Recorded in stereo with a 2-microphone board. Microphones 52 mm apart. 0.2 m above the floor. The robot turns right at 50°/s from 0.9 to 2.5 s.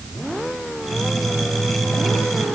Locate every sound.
Only background noise.